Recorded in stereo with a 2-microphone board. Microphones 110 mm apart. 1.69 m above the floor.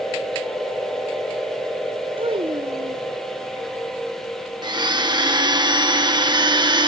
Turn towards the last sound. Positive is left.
turn(degrees=-40)  # may be behind; listen again after turning